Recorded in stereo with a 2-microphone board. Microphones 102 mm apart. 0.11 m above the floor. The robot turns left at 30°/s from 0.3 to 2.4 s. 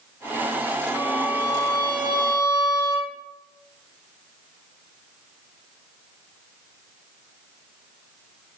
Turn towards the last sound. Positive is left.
turn(degrees=-120)